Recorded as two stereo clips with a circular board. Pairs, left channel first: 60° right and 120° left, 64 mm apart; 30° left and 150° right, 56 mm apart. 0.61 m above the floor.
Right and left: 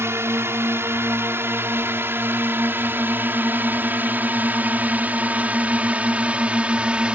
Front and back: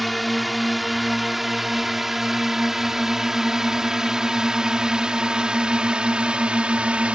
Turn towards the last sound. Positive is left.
turn(degrees=170)